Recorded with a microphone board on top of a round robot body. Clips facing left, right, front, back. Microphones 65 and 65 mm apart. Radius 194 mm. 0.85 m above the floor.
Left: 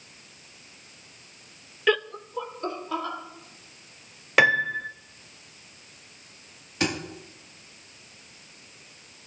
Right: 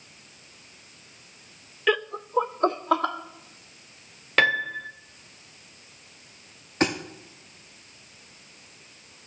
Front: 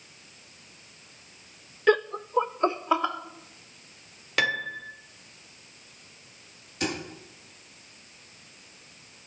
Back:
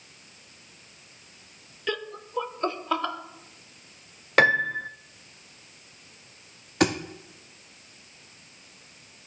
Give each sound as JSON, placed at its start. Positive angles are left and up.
{"t": 1.9, "sound": "laughter", "azimuth_deg": 0, "distance_m": 0.5}
{"t": 4.4, "sound": "a piano", "azimuth_deg": 165, "distance_m": 0.7}
{"t": 6.8, "sound": "a thud", "azimuth_deg": -150, "distance_m": 0.7}